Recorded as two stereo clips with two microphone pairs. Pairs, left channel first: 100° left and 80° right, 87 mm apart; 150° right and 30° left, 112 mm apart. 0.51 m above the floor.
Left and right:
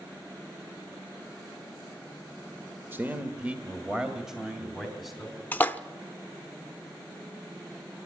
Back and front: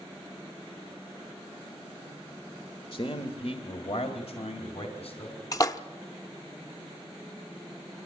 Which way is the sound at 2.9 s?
140° right.